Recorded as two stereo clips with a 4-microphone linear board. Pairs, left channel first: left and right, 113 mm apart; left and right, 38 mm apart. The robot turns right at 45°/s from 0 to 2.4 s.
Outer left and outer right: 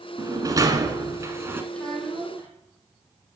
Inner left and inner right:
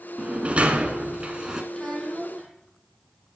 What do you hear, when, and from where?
0.2 s a sliding door: 105° right, 1.0 m; by 1.6 s 40° right, 1.0 m
1.7 s a child speaking: 170° left, 3.5 m; by 2.5 s 160° right, 3.5 m